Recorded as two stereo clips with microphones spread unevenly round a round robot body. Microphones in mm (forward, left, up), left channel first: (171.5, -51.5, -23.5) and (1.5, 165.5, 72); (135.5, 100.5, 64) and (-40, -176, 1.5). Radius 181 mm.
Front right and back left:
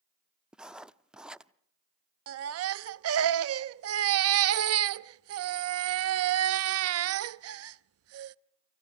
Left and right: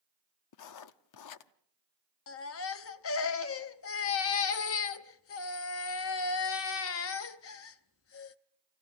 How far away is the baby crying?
About 0.5 m.